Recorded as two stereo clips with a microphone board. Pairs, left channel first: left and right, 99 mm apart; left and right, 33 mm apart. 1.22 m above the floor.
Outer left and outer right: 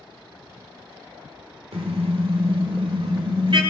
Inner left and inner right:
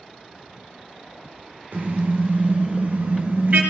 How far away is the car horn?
About 2.5 m.